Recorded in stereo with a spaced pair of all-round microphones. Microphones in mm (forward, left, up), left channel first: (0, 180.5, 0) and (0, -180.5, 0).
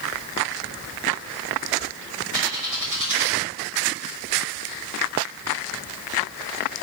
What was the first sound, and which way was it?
A bird, 55° right (ahead or behind).